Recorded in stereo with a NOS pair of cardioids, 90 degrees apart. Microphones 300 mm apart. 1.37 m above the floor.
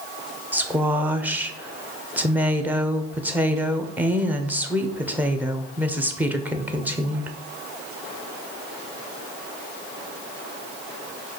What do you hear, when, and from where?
0.5 s a woman speaking: 5° right, 0.6 m